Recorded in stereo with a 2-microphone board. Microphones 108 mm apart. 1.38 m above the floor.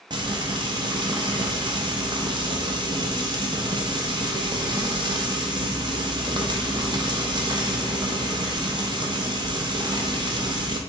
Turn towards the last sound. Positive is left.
turn(degrees=-45)  # may be behind; listen again after turning